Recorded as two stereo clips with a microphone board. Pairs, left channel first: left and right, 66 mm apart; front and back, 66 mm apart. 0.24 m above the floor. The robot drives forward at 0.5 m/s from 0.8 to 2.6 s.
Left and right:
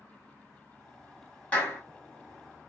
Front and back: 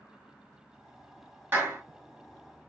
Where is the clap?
145° left, 1.2 m; by 1.8 s 150° left, 1.3 m.